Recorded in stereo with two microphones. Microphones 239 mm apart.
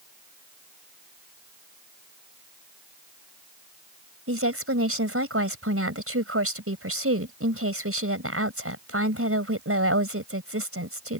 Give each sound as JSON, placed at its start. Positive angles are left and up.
{"t": 4.3, "sound": "a woman speaking", "side_deg": -70}